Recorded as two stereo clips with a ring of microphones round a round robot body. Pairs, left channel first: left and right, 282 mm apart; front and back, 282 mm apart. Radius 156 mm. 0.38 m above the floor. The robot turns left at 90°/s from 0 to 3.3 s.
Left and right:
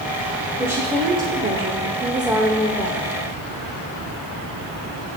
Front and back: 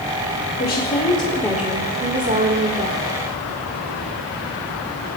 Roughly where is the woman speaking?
Ahead.